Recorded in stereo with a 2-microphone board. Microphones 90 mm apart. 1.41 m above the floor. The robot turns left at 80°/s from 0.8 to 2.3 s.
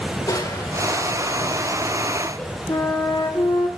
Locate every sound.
0.3 s crushing: 135° left, 3.5 m; by 2.6 s 15° left, 3.5 m
2.7 s a flute: 50° left (ahead or behind), 1.8 m